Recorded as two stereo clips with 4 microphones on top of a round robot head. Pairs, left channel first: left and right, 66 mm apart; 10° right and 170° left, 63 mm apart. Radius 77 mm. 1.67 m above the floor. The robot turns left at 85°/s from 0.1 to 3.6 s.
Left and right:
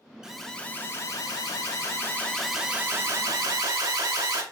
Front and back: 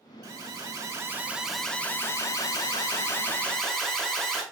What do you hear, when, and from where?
0.2 s an alarm: 170° right, 2.5 m; by 4.4 s 95° right, 2.5 m